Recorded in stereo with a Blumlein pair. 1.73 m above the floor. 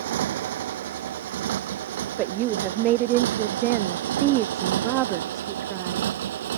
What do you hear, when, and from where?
0.0 s a motorcycle: 55° right; by 6.6 s 60° right
2.2 s a woman speaking: 35° right